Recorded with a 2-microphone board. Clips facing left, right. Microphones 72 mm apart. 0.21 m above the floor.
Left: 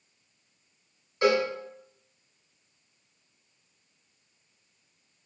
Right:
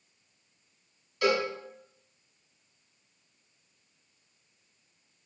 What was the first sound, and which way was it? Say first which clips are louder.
A cowbell: left 3 dB; 30° left (ahead or behind).